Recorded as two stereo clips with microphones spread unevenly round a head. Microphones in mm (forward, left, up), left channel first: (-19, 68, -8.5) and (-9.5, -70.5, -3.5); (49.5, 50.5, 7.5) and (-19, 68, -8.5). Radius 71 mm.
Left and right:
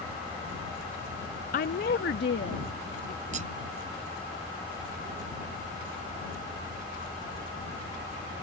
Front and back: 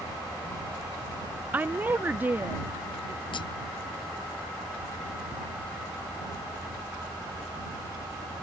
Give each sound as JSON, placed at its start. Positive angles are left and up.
{"t": 1.5, "sound": "a woman speaking", "azimuth_deg": 110}
{"t": 3.3, "sound": "cutlery clinking", "azimuth_deg": -40}